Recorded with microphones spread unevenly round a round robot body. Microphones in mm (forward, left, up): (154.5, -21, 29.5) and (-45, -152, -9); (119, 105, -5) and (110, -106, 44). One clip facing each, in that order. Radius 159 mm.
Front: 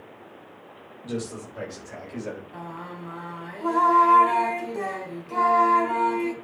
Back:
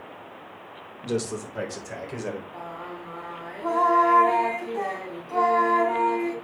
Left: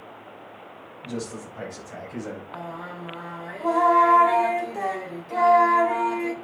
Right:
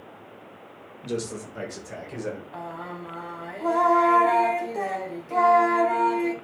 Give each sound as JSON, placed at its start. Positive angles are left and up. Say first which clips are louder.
{"t": 1.0, "sound": "a man speaking", "louder": "back 4 dB, right 2 dB", "azimuth_deg": -115, "distance_m": 3.5}
{"t": 2.5, "sound": "singing", "louder": "even, even", "azimuth_deg": -5, "distance_m": 3.0}